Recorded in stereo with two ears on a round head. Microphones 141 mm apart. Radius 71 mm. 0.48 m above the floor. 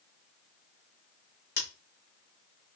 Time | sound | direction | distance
1.6 | scissors | 65° left (ahead or behind) | 2.5 m